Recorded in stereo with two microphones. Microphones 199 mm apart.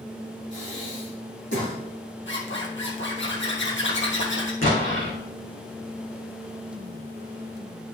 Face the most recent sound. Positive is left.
turn(degrees=80)